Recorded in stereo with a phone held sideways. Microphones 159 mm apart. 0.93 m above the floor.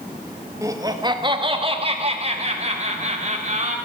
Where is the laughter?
20° right (ahead or behind), 1.1 m; by 3.8 s 50° right (ahead or behind), 2.5 m.